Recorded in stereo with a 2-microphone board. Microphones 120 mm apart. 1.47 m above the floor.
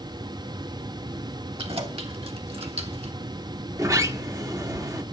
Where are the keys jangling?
50° right (ahead or behind), 2 m; by 3.1 s 55° right (ahead or behind), 1.4 m.